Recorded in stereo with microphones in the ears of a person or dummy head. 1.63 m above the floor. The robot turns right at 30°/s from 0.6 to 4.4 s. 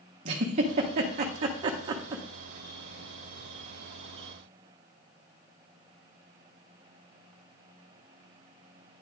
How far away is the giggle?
About 0.8 m.